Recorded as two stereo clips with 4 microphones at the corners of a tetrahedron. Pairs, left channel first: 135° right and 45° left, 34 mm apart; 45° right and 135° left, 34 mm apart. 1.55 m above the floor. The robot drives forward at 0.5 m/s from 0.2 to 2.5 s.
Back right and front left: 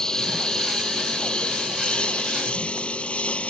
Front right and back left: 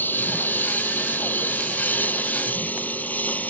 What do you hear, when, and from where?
0.0 s a lawn mower: 70° right; by 3.5 s 85° right